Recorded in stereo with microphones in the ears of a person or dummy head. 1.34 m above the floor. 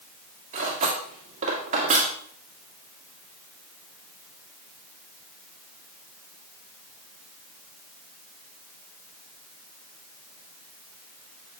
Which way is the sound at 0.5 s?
40° right (ahead or behind).